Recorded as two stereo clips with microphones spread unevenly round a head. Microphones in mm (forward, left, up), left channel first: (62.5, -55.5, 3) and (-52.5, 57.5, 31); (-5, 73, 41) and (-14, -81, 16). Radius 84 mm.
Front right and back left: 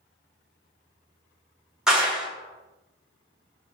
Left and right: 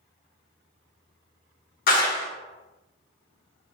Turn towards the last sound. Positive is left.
turn(degrees=50)